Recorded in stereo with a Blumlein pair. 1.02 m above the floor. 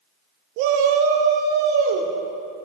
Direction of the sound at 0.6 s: 45° right.